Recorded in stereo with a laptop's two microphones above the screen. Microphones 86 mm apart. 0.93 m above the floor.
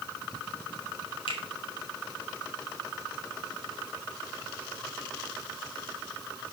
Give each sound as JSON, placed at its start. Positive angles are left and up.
{"t": 1.3, "sound": "a finger snap", "side_deg": 75, "distance_m": 2.5}